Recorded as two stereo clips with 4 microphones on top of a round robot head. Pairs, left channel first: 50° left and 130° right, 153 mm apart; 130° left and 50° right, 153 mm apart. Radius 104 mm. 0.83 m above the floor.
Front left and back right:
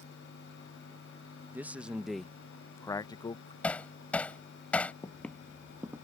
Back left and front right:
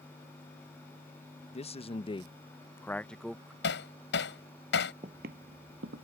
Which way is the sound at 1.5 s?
155° left.